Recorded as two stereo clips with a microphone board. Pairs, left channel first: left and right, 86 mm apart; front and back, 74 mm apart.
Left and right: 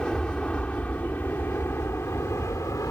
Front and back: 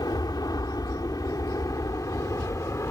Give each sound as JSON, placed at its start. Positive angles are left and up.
{"t": 0.0, "sound": "an aircraft", "azimuth_deg": 10}